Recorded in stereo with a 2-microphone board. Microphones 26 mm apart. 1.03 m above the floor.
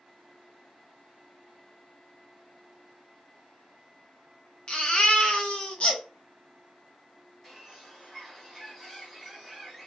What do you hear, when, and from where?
4.7 s a baby crying: 40° left (ahead or behind), 0.6 m
7.4 s a bird: 5° left (ahead or behind), 1.6 m